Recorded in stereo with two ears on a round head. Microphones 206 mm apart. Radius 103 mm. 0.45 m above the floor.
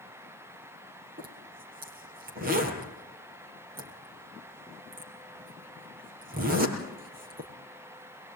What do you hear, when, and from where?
1.2 s a zipper: 40° right (ahead or behind), 4.5 m